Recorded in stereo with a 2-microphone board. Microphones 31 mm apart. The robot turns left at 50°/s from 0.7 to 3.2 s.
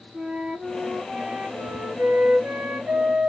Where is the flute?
10° right, 3 m; by 3.3 s 135° right, 3 m.